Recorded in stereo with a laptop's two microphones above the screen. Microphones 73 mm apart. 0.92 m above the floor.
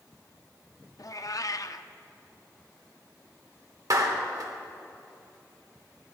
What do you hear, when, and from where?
1.0 s a cat meowing: 55° left (ahead or behind), 0.5 m
3.9 s a clap: 60° right (ahead or behind), 2.5 m